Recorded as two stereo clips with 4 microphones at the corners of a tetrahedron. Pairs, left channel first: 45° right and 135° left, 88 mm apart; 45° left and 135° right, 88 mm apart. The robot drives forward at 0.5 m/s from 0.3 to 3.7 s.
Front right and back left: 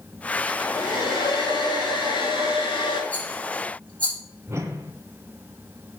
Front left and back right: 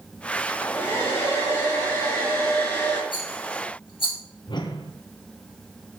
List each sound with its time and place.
0.5 s a hair dryer: 15° right, 4 m; by 3.0 s 20° right, 3 m
3.1 s a rattle: 30° left, 5.5 m
4.5 s a whoosh: 75° left, 1.1 m